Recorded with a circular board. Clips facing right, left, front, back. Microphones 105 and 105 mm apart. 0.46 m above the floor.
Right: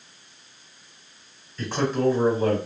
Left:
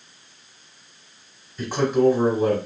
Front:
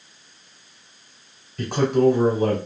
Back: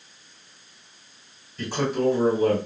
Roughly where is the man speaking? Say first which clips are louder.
Left 4 dB, front 6 dB; ahead.